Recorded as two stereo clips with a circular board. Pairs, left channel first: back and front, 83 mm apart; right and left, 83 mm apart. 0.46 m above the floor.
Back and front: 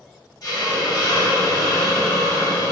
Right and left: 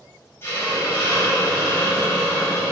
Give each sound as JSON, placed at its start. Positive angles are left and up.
{"t": 0.4, "sound": "a hiss", "azimuth_deg": -145, "distance_m": 2.5}